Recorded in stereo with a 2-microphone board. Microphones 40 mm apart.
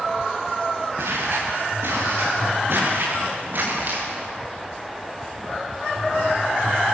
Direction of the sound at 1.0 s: 70° right (ahead or behind).